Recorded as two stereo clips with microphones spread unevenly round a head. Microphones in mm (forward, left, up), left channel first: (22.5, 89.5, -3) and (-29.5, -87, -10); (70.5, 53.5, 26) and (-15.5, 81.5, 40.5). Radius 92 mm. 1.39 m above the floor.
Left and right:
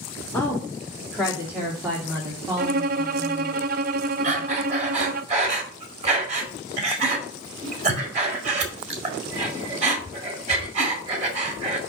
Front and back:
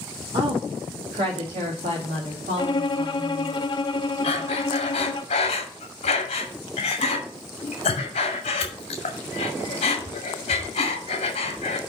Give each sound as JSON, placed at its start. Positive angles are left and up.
{"t": 0.3, "sound": "a woman speaking", "azimuth_deg": 155, "distance_m": 2.5}
{"t": 2.6, "sound": "a violin", "azimuth_deg": -65, "distance_m": 0.5}
{"t": 4.2, "sound": "breathing", "azimuth_deg": -50, "distance_m": 1.9}